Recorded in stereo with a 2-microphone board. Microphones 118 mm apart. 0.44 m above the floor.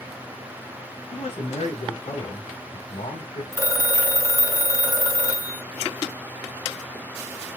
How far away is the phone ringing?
About 2.5 m.